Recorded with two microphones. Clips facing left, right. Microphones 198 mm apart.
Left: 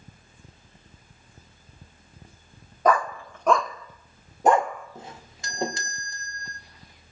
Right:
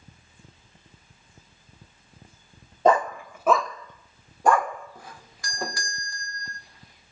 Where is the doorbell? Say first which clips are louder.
Left 3 dB; 25° left (ahead or behind), 1.8 m.